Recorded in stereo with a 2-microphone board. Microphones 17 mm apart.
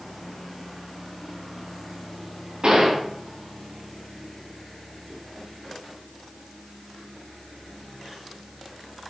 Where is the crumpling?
I don't hear crumpling.